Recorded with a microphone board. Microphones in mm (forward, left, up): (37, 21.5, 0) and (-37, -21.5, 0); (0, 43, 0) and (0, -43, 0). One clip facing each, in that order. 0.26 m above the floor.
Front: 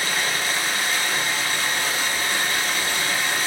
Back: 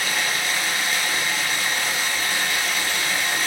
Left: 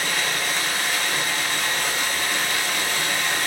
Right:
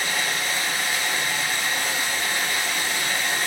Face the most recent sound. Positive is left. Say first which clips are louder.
# even, left 1 dB
turn(degrees=80)